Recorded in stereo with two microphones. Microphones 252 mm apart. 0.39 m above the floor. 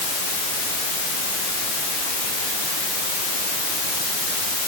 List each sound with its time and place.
Only background noise.